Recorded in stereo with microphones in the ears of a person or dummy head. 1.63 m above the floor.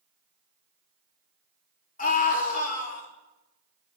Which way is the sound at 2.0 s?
50° left (ahead or behind).